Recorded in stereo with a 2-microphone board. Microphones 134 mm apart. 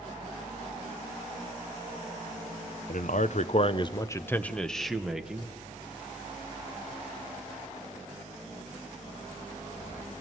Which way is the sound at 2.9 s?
65° left (ahead or behind).